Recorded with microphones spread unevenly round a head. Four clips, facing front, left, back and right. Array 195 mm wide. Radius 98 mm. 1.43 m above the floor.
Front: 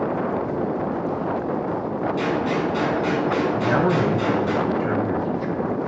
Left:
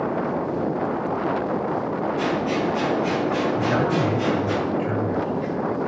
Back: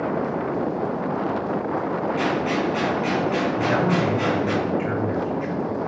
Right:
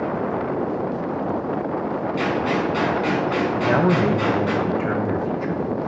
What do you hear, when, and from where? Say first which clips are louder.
2.2 s a gunshot: right 3 dB, front 1 dB; 90° right, 5.5 m
3.5 s a man speaking: right 3 dB, front 1 dB; 75° right, 2 m